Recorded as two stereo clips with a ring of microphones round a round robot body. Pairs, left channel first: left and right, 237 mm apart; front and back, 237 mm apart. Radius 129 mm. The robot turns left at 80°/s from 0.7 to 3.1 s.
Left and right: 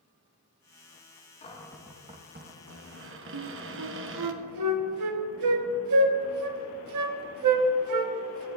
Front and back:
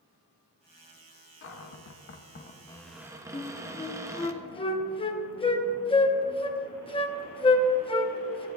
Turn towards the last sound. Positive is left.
turn(degrees=-70)